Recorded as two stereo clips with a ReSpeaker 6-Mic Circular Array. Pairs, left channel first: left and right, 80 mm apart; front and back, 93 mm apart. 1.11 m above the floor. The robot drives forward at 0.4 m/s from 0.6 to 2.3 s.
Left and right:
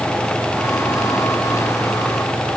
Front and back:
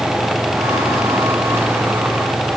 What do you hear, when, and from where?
Only background noise.